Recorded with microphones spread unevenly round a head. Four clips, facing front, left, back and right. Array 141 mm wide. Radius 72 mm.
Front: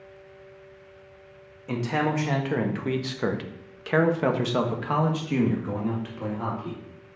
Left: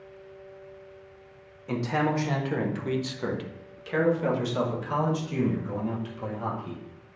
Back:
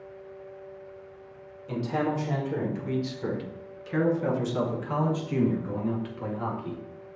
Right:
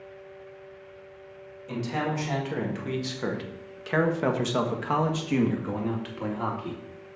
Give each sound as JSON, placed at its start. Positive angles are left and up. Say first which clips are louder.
{"t": 1.7, "sound": "a man speaking", "louder": "left 3 dB, front 2 dB", "azimuth_deg": 25, "distance_m": 1.7}